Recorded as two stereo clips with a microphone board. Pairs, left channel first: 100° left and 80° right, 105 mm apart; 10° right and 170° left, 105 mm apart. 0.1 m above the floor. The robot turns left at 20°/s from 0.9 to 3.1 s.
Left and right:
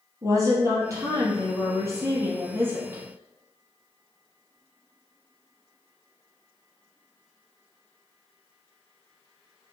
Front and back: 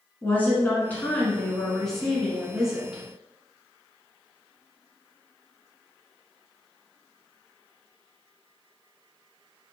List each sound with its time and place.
0.2 s a woman speaking: 75° right, 1.2 m; by 3.0 s 120° right, 1.2 m